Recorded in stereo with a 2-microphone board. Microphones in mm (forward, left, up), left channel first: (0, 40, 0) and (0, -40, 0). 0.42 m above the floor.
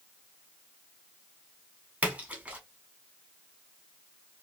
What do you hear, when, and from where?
2.0 s a splash: 20° right (ahead or behind), 1.0 m